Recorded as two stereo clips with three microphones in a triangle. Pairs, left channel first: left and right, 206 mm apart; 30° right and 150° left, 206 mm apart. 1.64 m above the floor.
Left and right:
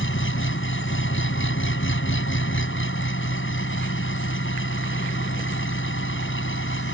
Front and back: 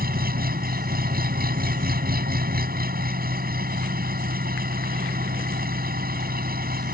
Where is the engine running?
105° left.